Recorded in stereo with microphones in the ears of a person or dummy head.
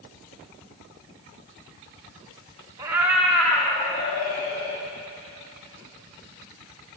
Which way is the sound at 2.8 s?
20° right (ahead or behind).